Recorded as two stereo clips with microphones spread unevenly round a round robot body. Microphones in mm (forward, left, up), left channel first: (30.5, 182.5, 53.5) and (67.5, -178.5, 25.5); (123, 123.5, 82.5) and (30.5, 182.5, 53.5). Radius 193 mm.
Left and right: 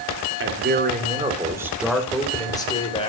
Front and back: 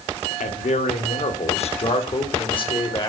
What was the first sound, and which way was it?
A man speaking, 30° right.